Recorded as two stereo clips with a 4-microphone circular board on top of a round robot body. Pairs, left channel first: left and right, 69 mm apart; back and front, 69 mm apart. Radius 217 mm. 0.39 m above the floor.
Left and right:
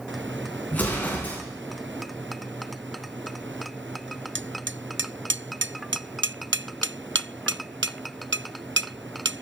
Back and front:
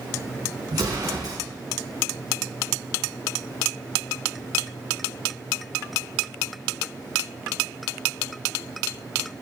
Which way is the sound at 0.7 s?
25° left.